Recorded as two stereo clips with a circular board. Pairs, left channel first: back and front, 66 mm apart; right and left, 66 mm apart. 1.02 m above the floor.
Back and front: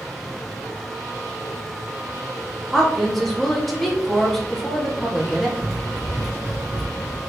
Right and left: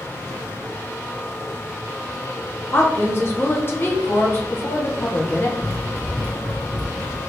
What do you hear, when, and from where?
2.7 s a woman speaking: 95° right, 0.7 m
5.6 s running footsteps: 125° left, 1.2 m; by 7.2 s 35° left, 1.3 m